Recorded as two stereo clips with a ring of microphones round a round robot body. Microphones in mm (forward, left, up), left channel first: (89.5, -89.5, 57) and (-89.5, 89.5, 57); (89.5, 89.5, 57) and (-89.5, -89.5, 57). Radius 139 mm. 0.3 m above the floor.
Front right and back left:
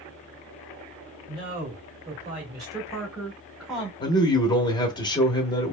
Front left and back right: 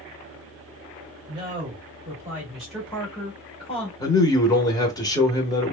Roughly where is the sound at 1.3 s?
Behind.